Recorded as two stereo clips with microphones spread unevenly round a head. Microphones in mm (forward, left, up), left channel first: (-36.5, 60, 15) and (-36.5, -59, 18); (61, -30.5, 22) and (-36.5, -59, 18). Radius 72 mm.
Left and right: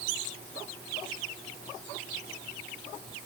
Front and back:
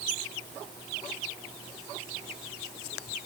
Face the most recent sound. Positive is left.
No sound to turn to.